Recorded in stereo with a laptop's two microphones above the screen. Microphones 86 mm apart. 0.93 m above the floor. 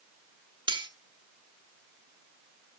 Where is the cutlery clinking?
85° right, 1.1 m.